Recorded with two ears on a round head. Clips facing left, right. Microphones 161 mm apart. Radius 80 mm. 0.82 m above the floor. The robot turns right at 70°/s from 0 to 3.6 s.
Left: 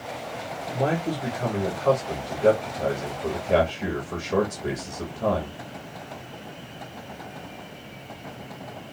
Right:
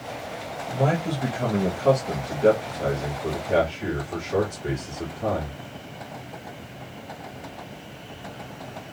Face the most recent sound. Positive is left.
turn(degrees=60)